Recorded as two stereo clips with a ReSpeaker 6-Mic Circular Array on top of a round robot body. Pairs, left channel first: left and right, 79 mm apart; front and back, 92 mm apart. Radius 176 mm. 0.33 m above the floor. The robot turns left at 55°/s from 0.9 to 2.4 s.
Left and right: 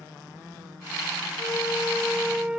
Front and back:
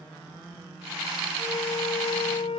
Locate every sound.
1.4 s a flute: 45° left; by 2.6 s 10° right